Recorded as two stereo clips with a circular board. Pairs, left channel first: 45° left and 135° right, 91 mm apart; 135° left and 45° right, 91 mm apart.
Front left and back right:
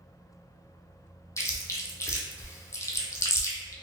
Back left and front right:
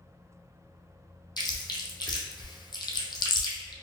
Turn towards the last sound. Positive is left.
turn(degrees=100)